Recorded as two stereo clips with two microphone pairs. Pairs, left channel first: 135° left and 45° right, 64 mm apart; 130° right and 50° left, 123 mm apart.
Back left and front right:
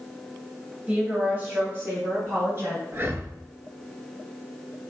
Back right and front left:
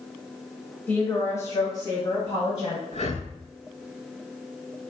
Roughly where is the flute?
I don't hear a flute.